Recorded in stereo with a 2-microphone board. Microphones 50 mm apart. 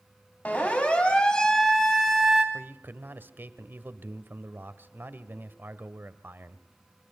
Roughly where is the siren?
Left.